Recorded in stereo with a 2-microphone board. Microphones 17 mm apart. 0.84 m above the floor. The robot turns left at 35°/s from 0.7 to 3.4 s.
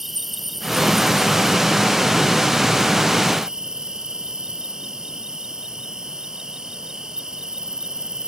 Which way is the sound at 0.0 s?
20° right.